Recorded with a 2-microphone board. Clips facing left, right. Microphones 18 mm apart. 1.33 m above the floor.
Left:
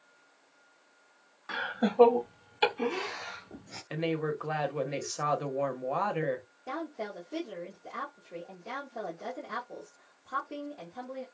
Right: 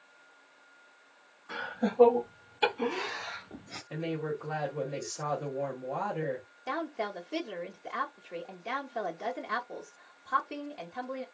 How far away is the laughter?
About 1.4 m.